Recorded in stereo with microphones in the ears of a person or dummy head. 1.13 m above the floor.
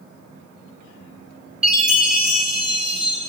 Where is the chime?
Centre (ahead or behind), 4.5 m.